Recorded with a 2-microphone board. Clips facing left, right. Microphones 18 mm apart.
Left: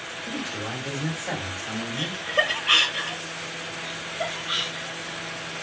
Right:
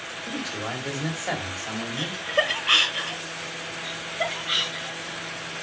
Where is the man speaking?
60° right (ahead or behind), 3 m.